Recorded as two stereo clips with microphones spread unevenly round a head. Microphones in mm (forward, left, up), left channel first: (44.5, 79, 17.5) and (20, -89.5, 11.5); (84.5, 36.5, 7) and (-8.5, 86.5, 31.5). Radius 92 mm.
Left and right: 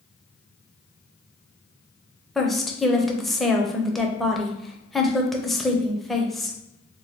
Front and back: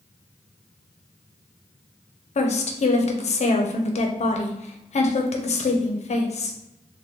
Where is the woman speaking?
5° right, 0.7 m.